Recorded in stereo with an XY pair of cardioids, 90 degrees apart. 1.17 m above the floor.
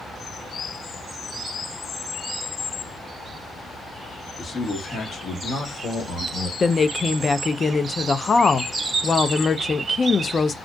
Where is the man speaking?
30° left, 1.2 m; by 6.5 s 75° left, 1.6 m.